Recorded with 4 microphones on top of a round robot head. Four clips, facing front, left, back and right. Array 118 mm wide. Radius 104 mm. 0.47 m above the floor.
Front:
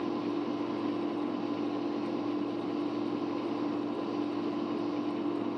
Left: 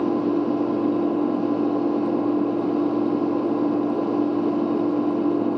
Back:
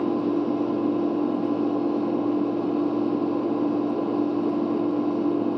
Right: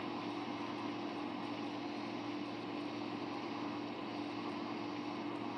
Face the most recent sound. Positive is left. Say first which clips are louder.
# left 20 dB, back 9 dB
turn(degrees=120)